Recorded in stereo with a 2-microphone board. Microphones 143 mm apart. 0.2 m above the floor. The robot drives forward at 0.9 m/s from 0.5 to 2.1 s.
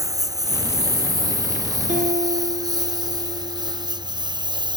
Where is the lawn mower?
25° right (ahead or behind); by 4.8 s 30° right (ahead or behind).